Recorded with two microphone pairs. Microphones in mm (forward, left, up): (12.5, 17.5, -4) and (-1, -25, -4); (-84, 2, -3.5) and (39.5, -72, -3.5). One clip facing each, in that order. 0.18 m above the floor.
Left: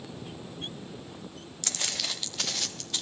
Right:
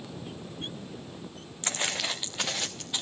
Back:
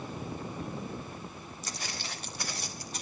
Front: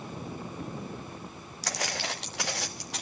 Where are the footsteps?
45° right, 0.7 m; by 3.0 s 35° right, 2 m.